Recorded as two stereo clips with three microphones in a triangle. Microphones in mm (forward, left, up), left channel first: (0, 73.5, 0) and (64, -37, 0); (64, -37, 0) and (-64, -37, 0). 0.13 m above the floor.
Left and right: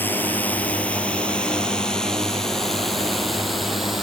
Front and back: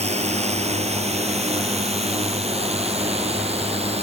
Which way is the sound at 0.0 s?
165° right.